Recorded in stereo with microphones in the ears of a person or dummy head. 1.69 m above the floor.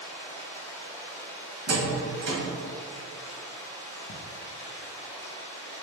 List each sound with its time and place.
0.0 s running water: 10° left (ahead or behind), 1.4 m
1.7 s a door slam: 65° right (ahead or behind), 1.6 m
4.1 s ticking: 65° left (ahead or behind), 0.5 m